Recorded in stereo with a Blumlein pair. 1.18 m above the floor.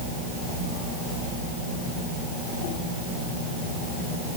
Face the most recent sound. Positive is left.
No sound to turn to.